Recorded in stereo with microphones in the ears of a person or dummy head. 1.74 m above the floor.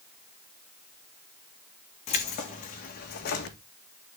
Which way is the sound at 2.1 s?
35° left (ahead or behind).